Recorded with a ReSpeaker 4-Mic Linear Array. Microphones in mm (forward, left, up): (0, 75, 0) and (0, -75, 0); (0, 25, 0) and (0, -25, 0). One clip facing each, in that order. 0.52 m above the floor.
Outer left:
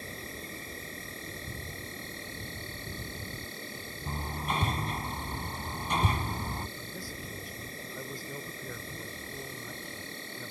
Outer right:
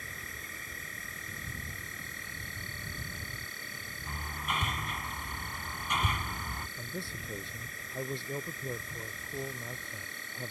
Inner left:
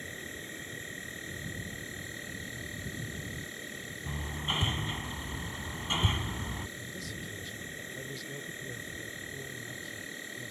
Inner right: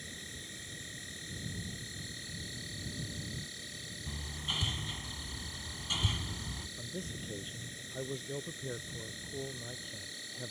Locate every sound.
0.0 s an insect: 30° left (ahead or behind)
4.1 s hammering: 30° left (ahead or behind)
6.8 s a man speaking: 25° right (ahead or behind)